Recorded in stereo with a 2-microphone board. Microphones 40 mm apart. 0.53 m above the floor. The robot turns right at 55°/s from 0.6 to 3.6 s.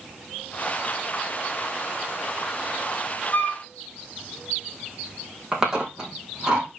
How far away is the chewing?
About 4.5 m.